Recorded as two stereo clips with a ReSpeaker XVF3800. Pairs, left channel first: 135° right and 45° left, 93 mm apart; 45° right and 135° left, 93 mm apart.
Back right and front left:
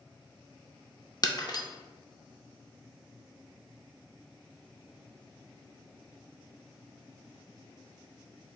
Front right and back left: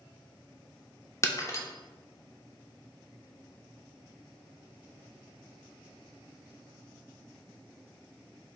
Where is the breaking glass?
95° right, 0.5 m.